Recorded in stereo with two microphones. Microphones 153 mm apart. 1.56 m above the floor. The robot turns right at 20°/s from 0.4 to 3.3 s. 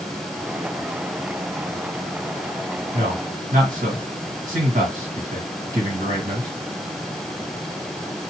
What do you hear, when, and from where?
2.9 s a man speaking: 65° right (ahead or behind), 1.8 m; by 6.5 s 60° right (ahead or behind), 1.8 m